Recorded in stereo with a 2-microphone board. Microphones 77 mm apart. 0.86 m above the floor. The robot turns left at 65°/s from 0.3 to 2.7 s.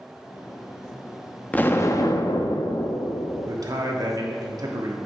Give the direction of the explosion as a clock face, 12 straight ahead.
7 o'clock.